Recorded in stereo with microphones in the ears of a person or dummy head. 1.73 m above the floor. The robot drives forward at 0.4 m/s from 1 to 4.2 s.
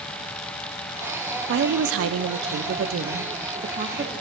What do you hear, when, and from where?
1.5 s a woman speaking: 60° right (ahead or behind), 0.6 m; by 4.1 s 30° right (ahead or behind), 1.0 m